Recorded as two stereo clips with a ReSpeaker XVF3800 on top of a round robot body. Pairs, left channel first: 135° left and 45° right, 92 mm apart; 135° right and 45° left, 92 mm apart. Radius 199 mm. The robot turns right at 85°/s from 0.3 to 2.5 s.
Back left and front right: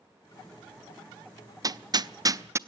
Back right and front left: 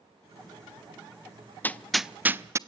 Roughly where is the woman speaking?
No woman speaking in this recording.